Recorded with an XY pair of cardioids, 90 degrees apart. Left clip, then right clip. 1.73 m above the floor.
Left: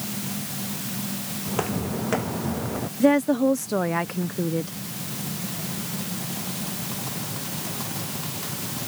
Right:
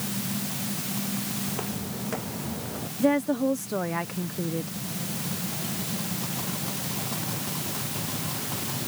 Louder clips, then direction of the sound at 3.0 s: Left 4 dB; 35° left.